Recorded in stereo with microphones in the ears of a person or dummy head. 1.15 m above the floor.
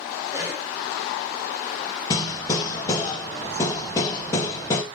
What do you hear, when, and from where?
0.3 s a cough: 15° right (ahead or behind), 4 m
2.1 s hammering: 20° left (ahead or behind), 3.5 m